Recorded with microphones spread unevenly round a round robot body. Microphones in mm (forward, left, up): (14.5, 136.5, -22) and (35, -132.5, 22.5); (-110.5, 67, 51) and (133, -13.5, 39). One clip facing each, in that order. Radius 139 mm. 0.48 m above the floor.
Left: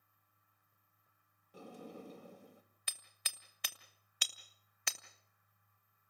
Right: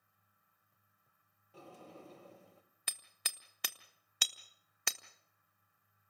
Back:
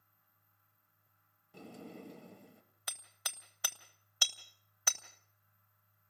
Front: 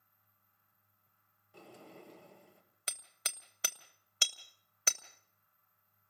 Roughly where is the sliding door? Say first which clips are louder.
Left 4 dB, back 5 dB; behind.